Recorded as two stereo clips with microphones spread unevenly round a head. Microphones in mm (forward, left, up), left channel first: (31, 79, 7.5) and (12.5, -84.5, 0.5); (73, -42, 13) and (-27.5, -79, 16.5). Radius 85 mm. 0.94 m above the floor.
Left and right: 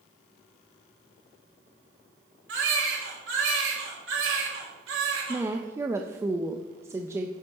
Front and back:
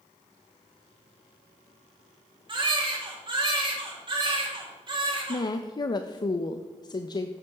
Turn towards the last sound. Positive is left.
turn(degrees=-25)